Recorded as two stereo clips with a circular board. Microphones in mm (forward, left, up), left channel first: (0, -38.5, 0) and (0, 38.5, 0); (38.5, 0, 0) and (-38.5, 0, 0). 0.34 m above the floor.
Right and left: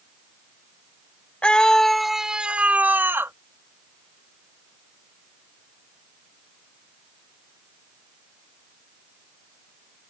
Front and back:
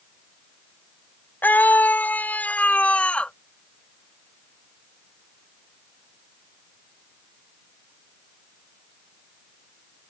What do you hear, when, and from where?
1.4 s a scream: 30° right; by 3.3 s 65° left